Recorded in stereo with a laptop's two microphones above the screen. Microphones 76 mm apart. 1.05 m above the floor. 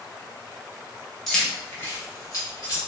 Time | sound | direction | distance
1.3 | keys jangling | 5° left (ahead or behind) | 0.6 m